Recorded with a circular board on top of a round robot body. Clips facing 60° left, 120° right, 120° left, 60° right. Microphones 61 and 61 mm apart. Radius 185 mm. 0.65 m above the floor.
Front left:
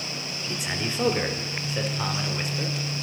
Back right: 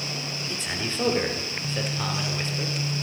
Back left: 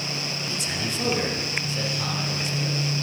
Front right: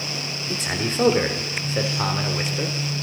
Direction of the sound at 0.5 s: 20° right.